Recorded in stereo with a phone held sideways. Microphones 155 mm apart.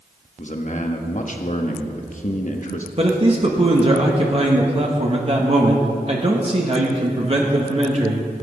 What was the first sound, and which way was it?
A man speaking, 55° left (ahead or behind).